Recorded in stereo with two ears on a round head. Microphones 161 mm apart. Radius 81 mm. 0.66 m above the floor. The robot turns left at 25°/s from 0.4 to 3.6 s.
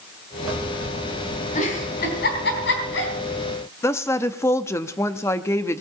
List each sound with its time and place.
1.6 s a giggle: 40° left (ahead or behind), 3.5 m; by 3.1 s 80° left, 3.5 m
3.8 s a woman speaking: 15° left (ahead or behind), 0.6 m